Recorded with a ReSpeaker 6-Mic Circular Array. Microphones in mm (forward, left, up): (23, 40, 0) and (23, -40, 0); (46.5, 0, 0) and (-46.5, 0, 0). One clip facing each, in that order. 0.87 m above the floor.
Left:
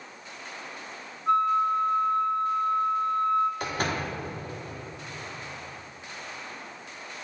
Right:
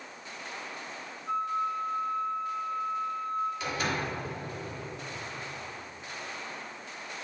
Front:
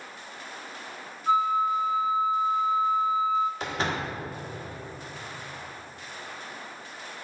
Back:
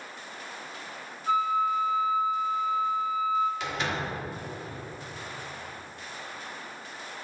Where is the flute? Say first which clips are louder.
Left 8 dB, front 2 dB; 65° left, 0.6 m.